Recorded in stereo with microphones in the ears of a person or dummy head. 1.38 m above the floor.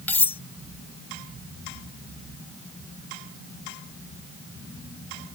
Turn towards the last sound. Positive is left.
turn(degrees=10)  # may be behind; listen again after turning